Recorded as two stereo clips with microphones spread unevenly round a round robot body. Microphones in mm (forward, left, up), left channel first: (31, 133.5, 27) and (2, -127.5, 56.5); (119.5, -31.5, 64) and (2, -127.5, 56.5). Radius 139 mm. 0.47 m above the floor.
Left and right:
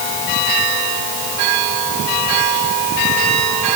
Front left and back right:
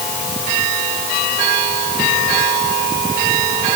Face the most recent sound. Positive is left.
No sound to turn to.